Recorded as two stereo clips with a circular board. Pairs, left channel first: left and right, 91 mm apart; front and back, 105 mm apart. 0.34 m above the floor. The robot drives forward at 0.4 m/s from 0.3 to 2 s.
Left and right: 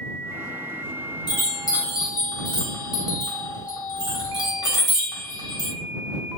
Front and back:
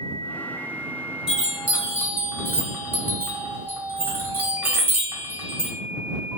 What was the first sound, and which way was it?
A chime, 95° left.